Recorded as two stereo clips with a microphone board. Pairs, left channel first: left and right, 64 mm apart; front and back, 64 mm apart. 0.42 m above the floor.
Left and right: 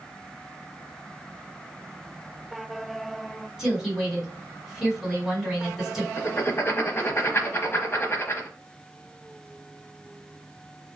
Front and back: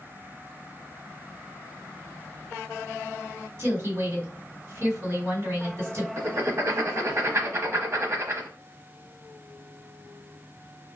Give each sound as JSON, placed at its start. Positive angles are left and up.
{"t": 3.6, "sound": "a woman speaking", "azimuth_deg": -170, "distance_m": 1.9}
{"t": 6.2, "sound": "writing", "azimuth_deg": 135, "distance_m": 0.9}